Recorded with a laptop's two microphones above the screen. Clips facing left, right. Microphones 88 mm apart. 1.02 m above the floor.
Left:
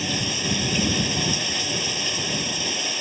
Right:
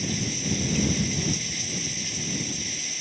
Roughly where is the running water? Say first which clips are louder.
Left 2 dB; left.